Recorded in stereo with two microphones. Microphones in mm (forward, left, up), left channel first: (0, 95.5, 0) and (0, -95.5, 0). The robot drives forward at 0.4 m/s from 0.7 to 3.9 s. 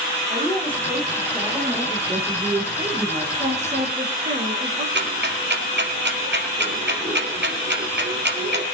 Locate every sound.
0.3 s a woman speaking: 10° right (ahead or behind), 8.5 m
2.1 s a woman speaking: 25° right (ahead or behind), 9 m
3.4 s a woman speaking: 40° right (ahead or behind), 5 m
5.0 s ticking: 70° right (ahead or behind), 3.5 m